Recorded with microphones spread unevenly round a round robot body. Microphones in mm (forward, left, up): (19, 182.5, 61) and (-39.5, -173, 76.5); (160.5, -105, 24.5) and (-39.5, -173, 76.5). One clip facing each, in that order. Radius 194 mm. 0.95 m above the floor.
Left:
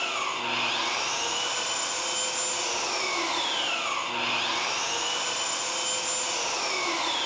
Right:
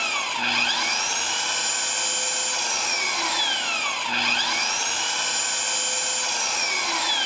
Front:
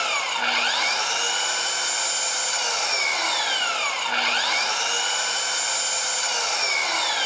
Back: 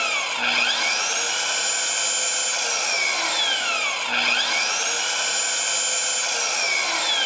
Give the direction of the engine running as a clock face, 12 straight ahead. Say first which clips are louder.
Right 1 dB, even; 3 o'clock.